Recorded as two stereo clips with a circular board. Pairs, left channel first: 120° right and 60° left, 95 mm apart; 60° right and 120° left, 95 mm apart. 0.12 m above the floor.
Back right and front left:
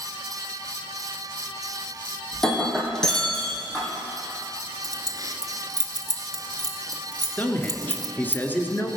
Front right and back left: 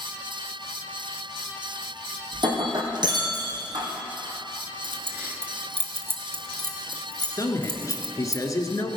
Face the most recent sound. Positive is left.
turn(degrees=-65)